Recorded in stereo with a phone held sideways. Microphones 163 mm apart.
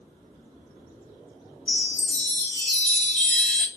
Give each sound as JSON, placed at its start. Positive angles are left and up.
{"t": 1.7, "sound": "a chime", "side_deg": 5, "distance_m": 1.5}